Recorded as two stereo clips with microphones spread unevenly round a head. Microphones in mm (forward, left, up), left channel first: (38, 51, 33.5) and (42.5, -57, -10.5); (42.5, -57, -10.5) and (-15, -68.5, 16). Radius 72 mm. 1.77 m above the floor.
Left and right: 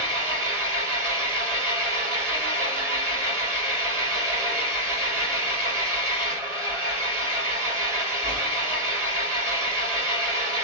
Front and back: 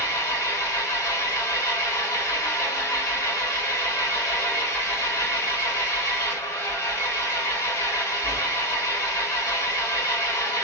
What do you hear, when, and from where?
0.0 s an engine running: 10° right, 1.6 m